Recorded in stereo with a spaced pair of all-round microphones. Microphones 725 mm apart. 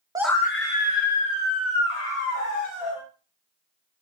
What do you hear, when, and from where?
0.1 s a scream: 5° right (ahead or behind), 0.6 m; by 3.0 s 65° left (ahead or behind), 1.8 m